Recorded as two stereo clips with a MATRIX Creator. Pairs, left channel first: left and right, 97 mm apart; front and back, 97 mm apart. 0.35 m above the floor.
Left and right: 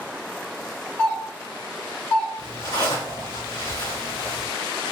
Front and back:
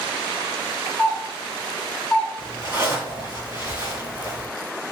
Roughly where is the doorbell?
Left.